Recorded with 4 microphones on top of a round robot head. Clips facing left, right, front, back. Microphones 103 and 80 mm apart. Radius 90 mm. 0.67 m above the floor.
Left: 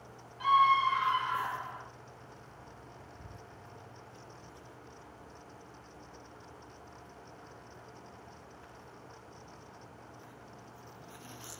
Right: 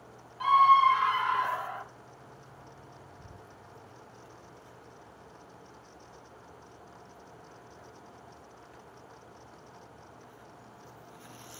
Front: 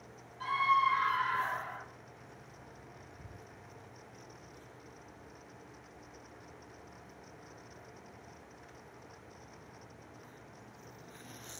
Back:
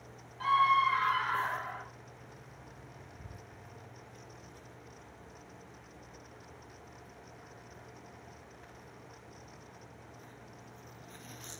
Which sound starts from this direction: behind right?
A scream, at 0.4 s.